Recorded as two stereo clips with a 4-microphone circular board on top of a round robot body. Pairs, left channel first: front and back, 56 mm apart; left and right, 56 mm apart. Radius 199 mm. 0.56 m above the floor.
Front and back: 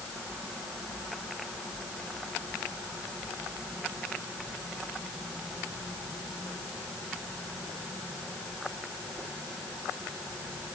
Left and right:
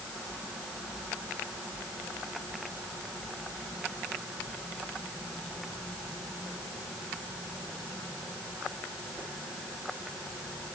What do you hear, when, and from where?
Only background noise.